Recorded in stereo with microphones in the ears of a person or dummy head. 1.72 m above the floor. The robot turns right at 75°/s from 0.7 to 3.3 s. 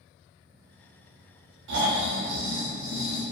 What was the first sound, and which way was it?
Snoring, 110° right.